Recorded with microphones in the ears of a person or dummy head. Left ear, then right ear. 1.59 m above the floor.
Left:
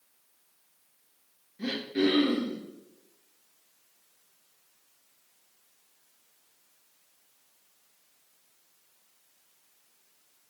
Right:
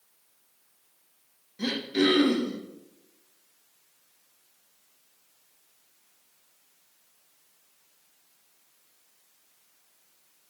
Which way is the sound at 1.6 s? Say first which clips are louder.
Right 3 dB; 80° right.